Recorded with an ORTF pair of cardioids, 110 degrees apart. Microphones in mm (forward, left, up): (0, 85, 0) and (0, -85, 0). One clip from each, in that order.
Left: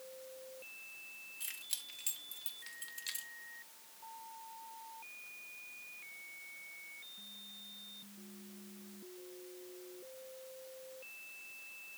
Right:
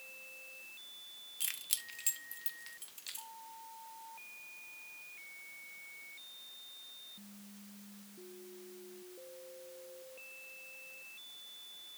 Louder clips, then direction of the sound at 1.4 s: Right 6 dB; 45° right.